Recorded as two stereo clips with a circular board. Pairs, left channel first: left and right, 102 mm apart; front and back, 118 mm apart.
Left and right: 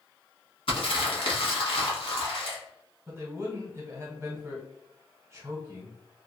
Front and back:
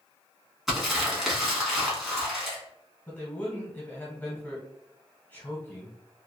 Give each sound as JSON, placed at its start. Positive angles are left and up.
{"t": 0.7, "sound": "crumpling", "azimuth_deg": 95, "distance_m": 1.0}
{"t": 3.1, "sound": "a man speaking", "azimuth_deg": -60, "distance_m": 1.3}